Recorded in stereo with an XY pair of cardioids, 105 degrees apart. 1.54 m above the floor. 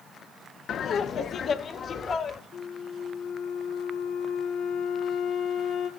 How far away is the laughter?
About 1.1 m.